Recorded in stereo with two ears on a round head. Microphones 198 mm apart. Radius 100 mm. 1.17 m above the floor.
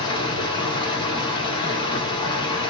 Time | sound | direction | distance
0.0 | running water | 20° left (ahead or behind) | 1.1 m